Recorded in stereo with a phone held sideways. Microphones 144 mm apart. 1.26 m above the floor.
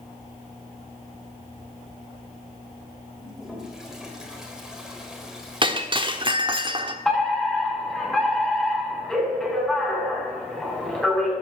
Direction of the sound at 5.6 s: 35° right (ahead or behind).